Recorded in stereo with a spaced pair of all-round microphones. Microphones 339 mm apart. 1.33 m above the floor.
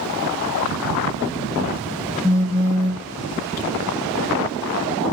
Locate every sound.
2.2 s a phone buzzing: 20° left (ahead or behind), 1.9 m